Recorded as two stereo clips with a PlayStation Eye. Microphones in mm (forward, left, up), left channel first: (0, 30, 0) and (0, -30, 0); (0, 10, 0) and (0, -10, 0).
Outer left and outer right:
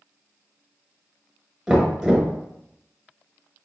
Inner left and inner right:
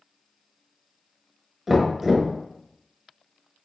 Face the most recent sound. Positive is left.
turn(degrees=-5)  # may be behind; listen again after turning